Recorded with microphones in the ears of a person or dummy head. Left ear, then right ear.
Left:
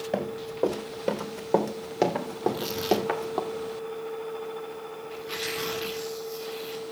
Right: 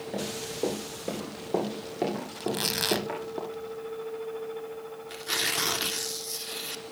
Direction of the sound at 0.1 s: 40° left (ahead or behind).